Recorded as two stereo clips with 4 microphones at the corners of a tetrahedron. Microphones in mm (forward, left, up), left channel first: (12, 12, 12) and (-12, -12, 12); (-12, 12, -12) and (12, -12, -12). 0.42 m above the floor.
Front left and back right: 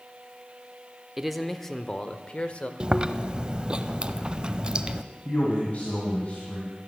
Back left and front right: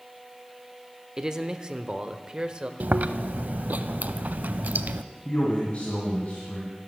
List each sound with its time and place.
1.2 s a man speaking: 65° right, 0.8 m; by 2.7 s 15° left, 1.2 m
2.8 s chewing: 75° right, 0.5 m
5.2 s a man speaking: 90° left, 2.5 m